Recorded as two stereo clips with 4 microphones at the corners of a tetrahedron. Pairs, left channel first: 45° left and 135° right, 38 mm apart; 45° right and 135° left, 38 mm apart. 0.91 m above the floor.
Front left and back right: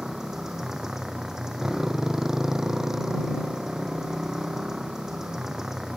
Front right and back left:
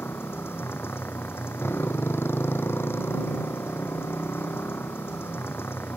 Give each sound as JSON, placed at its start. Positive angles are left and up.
{"t": 0.0, "sound": "a motorcycle", "azimuth_deg": -60}